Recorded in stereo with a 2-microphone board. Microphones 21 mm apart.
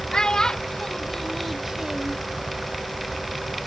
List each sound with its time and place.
0.1 s a child speaking: 40° left (ahead or behind), 1.5 m; by 2.2 s 45° right (ahead or behind), 0.6 m